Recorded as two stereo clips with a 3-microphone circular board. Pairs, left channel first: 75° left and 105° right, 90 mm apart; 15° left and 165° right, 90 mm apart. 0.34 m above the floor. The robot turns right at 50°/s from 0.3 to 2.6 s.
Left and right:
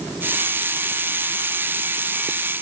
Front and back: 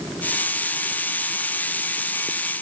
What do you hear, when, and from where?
Only background noise.